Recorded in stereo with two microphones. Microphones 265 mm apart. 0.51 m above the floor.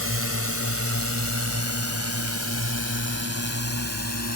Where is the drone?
55° right (ahead or behind); by 4.4 s 70° right (ahead or behind).